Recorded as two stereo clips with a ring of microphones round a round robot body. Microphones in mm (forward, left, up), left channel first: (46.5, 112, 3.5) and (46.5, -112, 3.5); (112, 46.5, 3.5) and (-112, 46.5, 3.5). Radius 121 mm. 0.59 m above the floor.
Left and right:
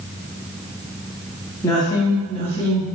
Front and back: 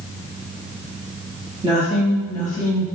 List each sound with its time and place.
1.6 s a woman speaking: 150° left, 1.0 m; by 2.9 s 30° left, 1.6 m